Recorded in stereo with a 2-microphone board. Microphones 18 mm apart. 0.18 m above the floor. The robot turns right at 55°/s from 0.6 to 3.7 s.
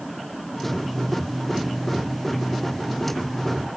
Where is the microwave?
No microwave in this recording.